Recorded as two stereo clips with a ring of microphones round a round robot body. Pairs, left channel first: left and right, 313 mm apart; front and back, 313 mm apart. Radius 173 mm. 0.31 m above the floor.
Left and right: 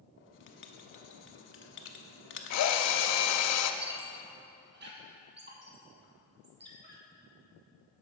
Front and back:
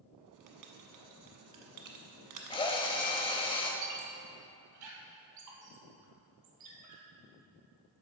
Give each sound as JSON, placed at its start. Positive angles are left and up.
{"t": 0.2, "sound": "writing", "azimuth_deg": 145, "distance_m": 1.0}
{"t": 2.5, "sound": "a drill", "azimuth_deg": 70, "distance_m": 0.6}
{"t": 3.8, "sound": "a squeak", "azimuth_deg": -150, "distance_m": 1.8}